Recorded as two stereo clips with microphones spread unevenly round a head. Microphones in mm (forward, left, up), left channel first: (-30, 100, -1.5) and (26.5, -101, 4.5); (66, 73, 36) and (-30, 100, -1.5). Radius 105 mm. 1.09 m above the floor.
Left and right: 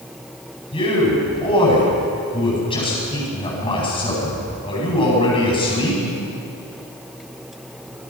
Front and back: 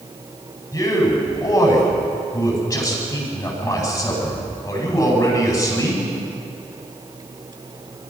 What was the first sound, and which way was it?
A man speaking, 40° left.